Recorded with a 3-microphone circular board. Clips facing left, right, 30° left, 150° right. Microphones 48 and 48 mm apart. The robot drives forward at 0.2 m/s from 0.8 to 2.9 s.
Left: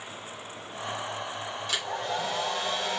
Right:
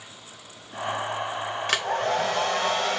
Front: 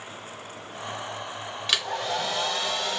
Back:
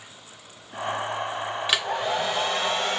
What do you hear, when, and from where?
1.7 s a hair dryer: 75° right, 0.6 m; by 3.0 s 105° right, 0.6 m